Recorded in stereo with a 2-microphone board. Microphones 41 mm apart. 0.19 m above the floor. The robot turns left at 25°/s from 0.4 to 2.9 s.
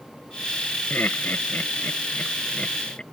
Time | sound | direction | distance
0.9 | laughter | 55° left (ahead or behind) | ?